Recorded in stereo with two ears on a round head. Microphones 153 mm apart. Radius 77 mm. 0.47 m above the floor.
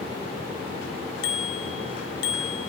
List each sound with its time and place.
1.2 s a bicycle bell: 80° left, 2.5 m